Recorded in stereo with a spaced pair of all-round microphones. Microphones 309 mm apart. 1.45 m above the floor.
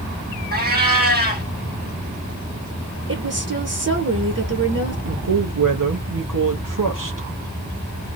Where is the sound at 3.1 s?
50° right (ahead or behind), 0.9 m.